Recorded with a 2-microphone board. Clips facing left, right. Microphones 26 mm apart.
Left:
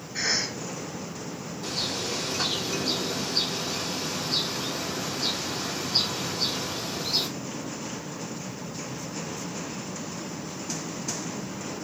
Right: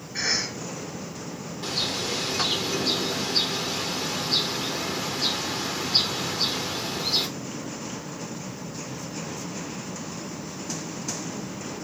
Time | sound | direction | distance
0.1 | a cough | 15° right (ahead or behind) | 1.6 m
1.6 | a bird | 65° right (ahead or behind) | 0.7 m